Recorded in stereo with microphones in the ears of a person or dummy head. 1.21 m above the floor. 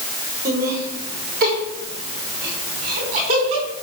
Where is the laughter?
65° right (ahead or behind), 5.5 m; by 3.7 s 45° right (ahead or behind), 5 m.